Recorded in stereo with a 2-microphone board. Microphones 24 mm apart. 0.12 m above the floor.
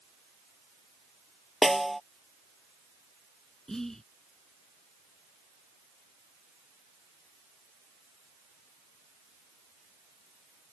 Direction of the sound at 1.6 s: 5° left (ahead or behind).